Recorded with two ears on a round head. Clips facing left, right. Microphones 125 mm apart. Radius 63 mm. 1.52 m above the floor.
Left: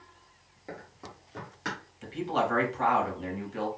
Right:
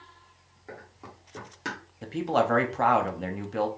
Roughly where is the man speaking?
Right.